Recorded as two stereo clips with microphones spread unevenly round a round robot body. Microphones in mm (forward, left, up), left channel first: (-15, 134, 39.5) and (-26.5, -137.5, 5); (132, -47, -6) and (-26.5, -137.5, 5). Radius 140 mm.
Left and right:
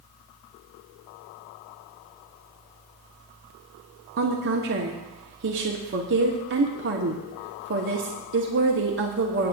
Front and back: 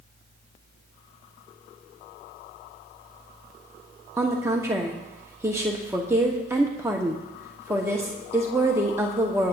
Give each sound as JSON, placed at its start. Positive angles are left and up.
{"t": 4.2, "sound": "a woman speaking", "azimuth_deg": -75, "distance_m": 1.0}